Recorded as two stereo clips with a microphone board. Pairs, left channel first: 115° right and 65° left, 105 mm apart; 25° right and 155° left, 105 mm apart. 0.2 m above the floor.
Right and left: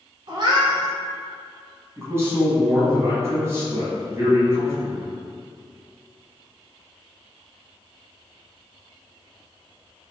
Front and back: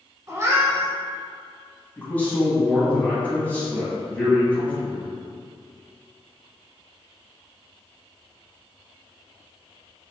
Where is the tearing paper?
No tearing paper in this recording.